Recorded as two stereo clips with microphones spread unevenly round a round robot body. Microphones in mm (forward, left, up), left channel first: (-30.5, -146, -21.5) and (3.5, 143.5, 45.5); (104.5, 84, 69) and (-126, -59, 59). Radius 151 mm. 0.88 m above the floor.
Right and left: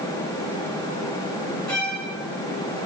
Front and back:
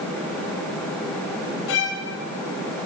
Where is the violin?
10° right, 2.5 m.